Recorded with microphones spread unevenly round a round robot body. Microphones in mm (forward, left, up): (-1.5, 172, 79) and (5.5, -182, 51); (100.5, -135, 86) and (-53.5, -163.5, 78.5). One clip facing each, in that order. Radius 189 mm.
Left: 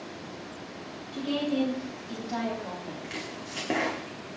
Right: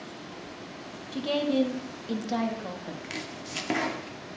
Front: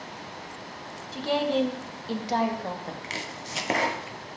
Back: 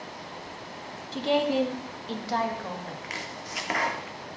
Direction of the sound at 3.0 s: 25° right.